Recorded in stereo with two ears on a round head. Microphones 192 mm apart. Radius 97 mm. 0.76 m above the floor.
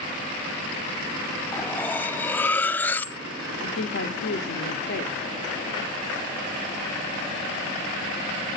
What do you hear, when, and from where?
1.5 s cutlery clinking: 10° left (ahead or behind), 0.7 m
3.6 s a woman speaking: 55° left (ahead or behind), 2.5 m